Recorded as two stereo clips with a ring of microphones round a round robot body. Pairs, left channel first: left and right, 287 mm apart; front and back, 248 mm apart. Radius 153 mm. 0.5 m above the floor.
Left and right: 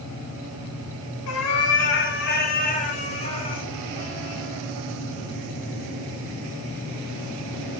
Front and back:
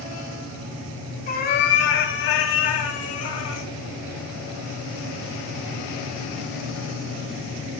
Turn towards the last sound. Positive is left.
turn(degrees=15)